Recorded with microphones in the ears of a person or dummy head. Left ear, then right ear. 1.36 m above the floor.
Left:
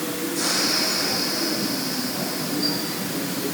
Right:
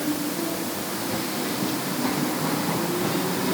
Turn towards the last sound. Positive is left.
No sound to turn to.